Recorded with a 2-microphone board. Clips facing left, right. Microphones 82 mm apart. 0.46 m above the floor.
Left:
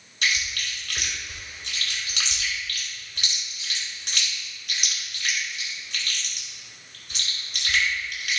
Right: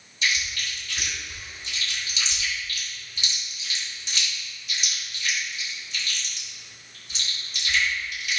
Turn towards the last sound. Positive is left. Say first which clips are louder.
# even
turn(degrees=60)  # may be behind; listen again after turning